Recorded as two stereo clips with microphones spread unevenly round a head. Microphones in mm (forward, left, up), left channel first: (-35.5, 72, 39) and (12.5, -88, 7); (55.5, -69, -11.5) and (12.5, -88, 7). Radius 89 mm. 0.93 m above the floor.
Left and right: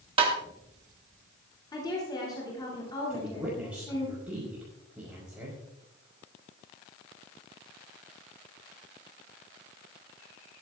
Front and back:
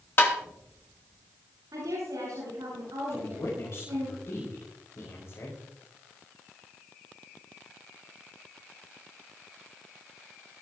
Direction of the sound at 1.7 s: 175° left.